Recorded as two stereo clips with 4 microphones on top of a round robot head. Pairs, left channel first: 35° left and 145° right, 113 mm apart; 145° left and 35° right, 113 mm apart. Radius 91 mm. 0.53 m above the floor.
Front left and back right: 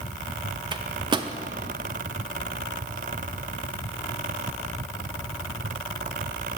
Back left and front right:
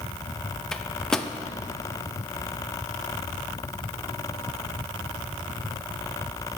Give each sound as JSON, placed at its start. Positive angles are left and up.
{"t": 0.7, "sound": "a microwave", "azimuth_deg": -130, "distance_m": 0.5}